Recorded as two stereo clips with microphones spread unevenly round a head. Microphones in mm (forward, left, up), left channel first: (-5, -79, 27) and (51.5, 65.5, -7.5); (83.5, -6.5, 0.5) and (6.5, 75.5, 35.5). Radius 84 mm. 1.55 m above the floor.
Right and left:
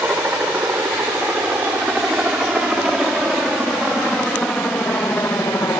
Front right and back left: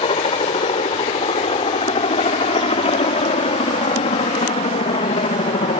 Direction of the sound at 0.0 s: 10° right.